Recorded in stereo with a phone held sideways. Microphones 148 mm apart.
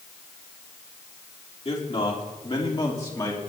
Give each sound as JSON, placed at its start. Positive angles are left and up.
{"t": 1.6, "sound": "a man speaking", "side_deg": 40, "distance_m": 3.0}